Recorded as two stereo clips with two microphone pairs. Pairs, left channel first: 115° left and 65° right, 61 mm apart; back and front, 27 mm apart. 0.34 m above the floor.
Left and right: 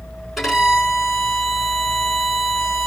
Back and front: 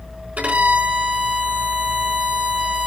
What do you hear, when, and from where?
0.4 s a violin: 25° left, 4 m